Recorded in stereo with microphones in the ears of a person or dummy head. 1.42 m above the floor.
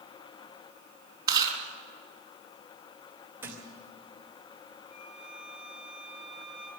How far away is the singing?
I don't hear singing.